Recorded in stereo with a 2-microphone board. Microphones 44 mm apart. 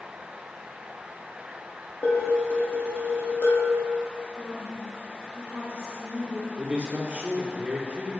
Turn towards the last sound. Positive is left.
turn(degrees=-30)  # may be behind; listen again after turning